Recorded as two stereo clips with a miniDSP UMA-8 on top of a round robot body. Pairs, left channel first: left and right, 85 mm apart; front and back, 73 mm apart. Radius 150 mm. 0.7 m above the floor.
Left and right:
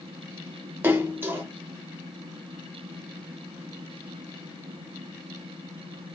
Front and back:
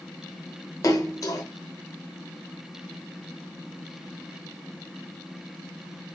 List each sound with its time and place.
0.8 s a splash: 30° right, 0.9 m